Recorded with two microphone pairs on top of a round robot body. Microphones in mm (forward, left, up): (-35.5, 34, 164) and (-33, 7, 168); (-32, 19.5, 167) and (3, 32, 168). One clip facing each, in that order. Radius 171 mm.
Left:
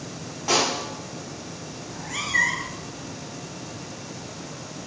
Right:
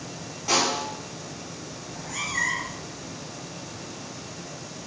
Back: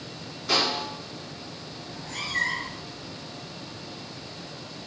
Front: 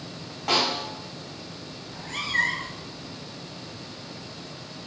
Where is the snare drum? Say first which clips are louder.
Left 1 dB, front 1 dB; 25° left, 4 m.